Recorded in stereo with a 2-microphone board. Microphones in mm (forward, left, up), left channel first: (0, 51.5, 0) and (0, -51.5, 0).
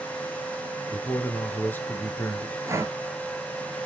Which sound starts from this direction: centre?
A man speaking, at 0.9 s.